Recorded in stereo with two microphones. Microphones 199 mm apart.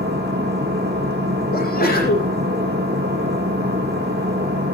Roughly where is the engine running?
Right.